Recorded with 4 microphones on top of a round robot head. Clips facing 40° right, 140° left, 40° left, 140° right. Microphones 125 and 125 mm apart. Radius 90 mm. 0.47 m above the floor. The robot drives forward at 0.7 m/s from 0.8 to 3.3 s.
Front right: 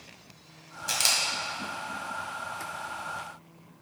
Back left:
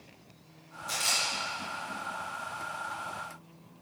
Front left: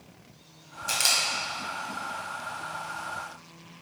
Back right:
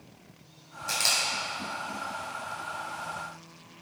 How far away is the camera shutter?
About 1.9 m.